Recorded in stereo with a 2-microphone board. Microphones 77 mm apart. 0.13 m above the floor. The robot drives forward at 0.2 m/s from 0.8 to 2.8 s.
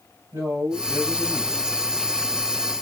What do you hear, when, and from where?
0.3 s a man speaking: 50° right (ahead or behind), 3 m